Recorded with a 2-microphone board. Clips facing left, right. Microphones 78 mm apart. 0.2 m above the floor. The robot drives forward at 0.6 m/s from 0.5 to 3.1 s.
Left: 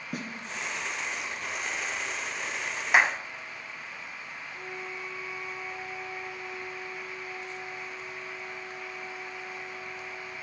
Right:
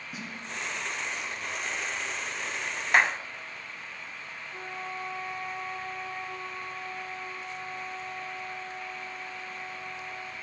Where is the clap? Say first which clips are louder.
Left 1 dB; 5° left (ahead or behind), 0.8 m.